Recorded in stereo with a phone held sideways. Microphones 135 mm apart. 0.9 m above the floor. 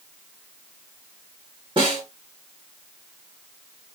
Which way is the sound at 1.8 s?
35° right (ahead or behind).